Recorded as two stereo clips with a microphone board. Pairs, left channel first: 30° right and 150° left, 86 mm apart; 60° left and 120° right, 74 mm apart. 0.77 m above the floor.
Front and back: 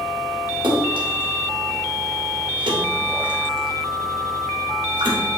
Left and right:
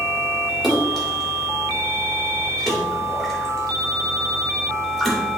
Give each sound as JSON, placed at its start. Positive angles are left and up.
{"t": 0.6, "sound": "a splash", "azimuth_deg": 150, "distance_m": 2.0}